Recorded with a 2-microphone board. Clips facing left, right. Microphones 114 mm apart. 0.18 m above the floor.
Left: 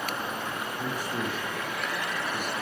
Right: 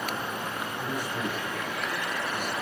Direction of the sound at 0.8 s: 40° left (ahead or behind).